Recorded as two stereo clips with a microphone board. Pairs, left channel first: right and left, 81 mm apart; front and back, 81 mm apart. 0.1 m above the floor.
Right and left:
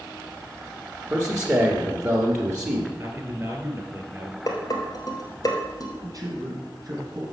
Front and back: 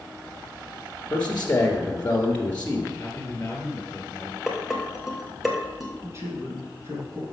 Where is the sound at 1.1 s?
55° left, 1.3 m.